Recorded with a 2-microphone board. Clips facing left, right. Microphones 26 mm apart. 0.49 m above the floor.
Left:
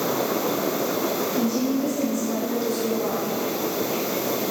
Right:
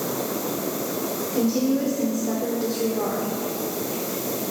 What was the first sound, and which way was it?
A woman speaking, 50° right (ahead or behind).